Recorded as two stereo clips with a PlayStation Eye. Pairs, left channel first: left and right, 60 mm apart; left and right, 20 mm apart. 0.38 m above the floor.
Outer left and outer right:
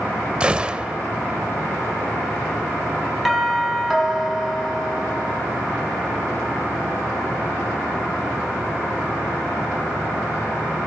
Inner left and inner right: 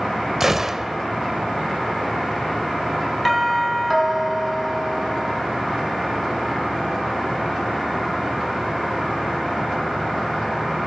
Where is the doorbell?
Centre (ahead or behind), 3.5 m.